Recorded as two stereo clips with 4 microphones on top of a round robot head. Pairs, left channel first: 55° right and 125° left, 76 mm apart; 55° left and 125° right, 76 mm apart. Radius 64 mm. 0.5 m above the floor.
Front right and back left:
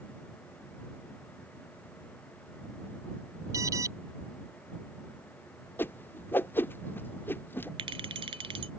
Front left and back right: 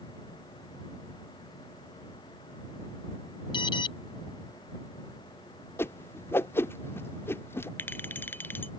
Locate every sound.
3.5 s an alarm: 75° left
5.8 s a whoosh: 5° left
7.8 s a clink: 120° left